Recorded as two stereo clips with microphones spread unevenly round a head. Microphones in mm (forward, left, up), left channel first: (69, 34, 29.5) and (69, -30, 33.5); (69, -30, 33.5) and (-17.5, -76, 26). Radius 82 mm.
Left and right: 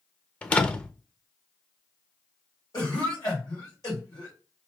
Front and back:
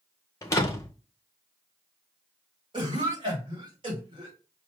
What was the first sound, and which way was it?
A door slam, 35° left.